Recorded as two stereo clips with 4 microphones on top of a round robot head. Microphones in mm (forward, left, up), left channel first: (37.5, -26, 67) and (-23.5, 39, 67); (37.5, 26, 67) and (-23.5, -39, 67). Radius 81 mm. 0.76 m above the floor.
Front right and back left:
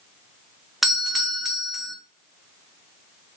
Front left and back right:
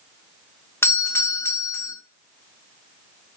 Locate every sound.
0.8 s a doorbell: 45° left, 0.9 m